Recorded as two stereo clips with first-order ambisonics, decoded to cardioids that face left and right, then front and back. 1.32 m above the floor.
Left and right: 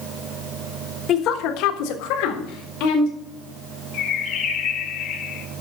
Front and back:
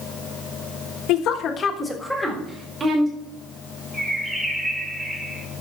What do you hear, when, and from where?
1.1 s a woman speaking: 35° left, 1.4 m; by 3.1 s 110° left, 3 m
3.9 s a bird: 100° left, 1.1 m